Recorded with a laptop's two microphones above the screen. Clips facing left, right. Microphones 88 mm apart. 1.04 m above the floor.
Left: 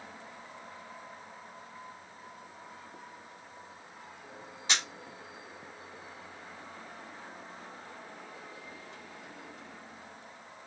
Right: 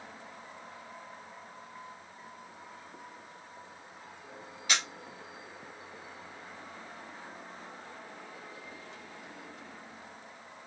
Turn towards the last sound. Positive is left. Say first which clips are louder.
# right 1 dB
turn(degrees=25)  # may be behind; listen again after turning